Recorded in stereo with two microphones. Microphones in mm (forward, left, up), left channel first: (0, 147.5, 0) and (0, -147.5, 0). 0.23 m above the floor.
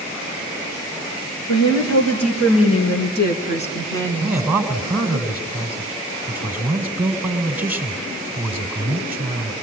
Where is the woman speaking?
65° left (ahead or behind), 4.5 m; by 4.4 s centre (ahead or behind), 3 m.